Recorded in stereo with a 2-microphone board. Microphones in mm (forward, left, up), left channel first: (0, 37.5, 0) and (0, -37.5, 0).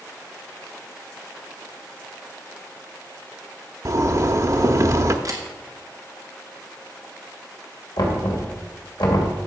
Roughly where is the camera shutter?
Right.